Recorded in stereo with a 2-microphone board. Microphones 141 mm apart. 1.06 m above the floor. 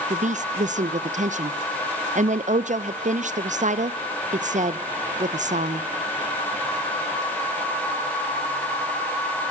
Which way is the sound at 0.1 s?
60° right (ahead or behind).